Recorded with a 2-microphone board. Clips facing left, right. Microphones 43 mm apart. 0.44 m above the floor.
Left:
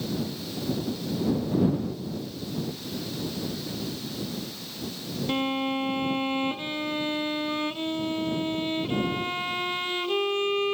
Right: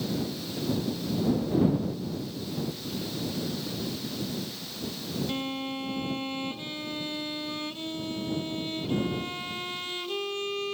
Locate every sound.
5.3 s a violin: 30° left (ahead or behind)